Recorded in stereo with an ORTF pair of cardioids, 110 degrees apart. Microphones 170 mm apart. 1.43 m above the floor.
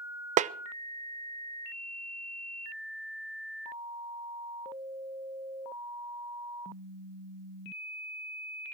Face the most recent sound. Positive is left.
turn(degrees=-40)